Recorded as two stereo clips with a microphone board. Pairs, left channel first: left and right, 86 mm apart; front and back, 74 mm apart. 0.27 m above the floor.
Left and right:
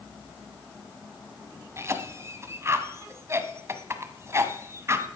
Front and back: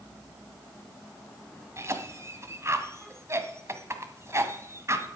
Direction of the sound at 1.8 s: 140° right.